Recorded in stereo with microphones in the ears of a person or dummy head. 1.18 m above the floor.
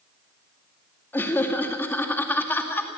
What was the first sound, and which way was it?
Laughter, 5° left (ahead or behind).